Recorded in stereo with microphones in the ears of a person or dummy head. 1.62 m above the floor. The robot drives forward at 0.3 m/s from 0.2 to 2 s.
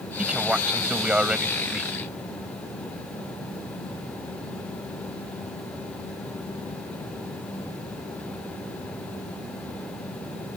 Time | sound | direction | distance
0.2 | a man speaking | 5° right (ahead or behind) | ?